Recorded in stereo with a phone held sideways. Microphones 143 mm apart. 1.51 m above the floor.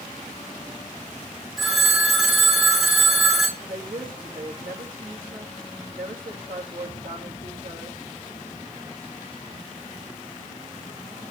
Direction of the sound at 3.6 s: 85° right.